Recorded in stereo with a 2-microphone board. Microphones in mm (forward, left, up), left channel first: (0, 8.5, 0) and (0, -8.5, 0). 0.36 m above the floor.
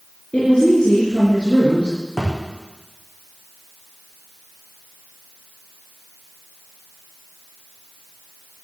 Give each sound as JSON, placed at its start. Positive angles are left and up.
{"t": 0.3, "sound": "a woman speaking", "side_deg": 75, "distance_m": 4.5}
{"t": 2.2, "sound": "a thud", "side_deg": 20, "distance_m": 5.5}